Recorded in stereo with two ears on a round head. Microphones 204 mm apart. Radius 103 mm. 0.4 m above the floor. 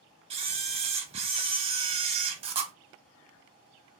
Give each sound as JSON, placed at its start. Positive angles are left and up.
{"t": 0.3, "sound": "a camera shutter", "side_deg": -25, "distance_m": 0.8}